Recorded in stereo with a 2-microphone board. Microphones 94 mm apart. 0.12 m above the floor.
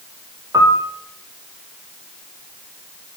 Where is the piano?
35° right (ahead or behind), 1.0 m.